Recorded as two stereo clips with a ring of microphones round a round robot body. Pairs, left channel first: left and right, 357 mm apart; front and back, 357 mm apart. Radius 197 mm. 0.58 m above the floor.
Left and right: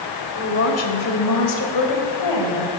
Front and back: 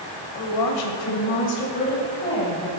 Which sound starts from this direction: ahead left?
A woman speaking, at 0.3 s.